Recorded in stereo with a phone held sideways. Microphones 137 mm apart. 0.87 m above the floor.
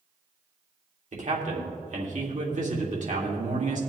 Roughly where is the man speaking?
Right.